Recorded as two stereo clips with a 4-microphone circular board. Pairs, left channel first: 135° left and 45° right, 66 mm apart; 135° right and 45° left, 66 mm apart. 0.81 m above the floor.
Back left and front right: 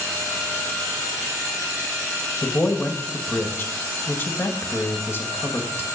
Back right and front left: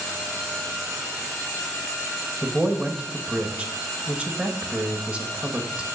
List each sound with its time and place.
2.4 s a man speaking: 105° left, 1.0 m